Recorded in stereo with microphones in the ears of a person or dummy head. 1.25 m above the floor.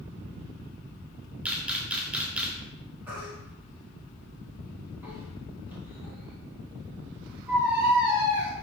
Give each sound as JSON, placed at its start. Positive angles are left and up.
{"t": 1.4, "sound": "a camera shutter", "side_deg": -5, "distance_m": 0.6}
{"t": 3.1, "sound": "a baby crying", "side_deg": -10, "distance_m": 1.4}